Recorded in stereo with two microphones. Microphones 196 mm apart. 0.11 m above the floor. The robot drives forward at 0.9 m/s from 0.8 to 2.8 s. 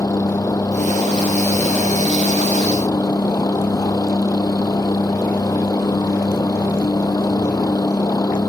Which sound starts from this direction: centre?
A helicopter, at 0.0 s.